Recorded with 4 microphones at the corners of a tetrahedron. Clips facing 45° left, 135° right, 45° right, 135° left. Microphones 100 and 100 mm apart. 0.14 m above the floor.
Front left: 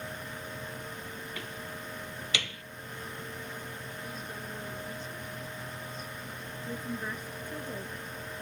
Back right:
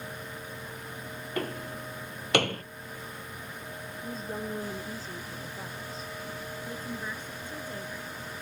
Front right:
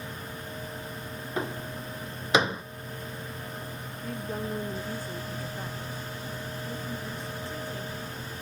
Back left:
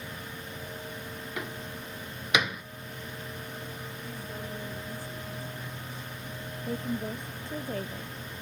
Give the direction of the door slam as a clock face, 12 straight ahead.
3 o'clock.